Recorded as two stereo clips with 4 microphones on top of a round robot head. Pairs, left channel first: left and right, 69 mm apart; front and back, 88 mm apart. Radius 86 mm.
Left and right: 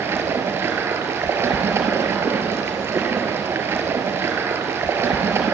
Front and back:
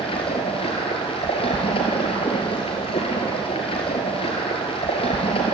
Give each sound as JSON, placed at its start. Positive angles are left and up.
{"t": 0.0, "sound": "running water", "azimuth_deg": -35, "distance_m": 3.0}